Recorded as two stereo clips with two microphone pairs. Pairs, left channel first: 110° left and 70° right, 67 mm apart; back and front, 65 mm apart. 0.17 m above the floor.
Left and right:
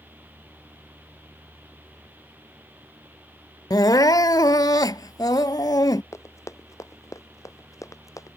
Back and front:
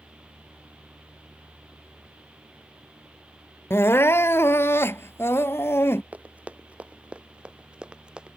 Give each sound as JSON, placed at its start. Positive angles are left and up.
{"t": 3.7, "sound": "crying", "azimuth_deg": 130}
{"t": 6.1, "sound": "running footsteps", "azimuth_deg": 70}